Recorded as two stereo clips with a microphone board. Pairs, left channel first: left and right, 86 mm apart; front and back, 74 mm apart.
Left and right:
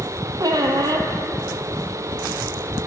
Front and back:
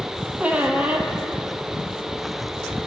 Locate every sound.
0.4 s a squeak: 115° right, 0.5 m